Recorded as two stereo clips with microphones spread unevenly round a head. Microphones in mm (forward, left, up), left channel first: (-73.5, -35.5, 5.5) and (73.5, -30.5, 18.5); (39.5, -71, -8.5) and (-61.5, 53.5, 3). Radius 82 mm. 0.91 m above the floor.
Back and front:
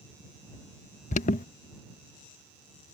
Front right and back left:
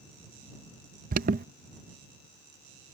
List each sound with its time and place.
1.1 s an alarm: 160° left